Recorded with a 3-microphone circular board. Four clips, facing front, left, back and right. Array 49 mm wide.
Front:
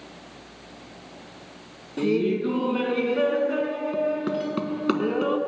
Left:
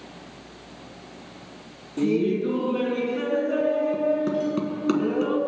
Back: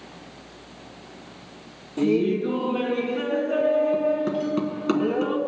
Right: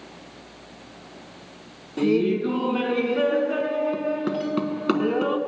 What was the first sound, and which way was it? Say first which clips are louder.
Laughter: right 2 dB, back 2 dB; 60° right.